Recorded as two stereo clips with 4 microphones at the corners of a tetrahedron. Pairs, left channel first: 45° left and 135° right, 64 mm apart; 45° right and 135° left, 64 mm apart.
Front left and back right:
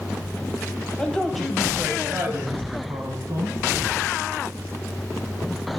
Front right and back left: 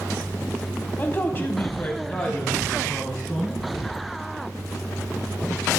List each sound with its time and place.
1.0 s a man speaking: 25° right, 1.1 m; by 3.6 s 125° right, 1.9 m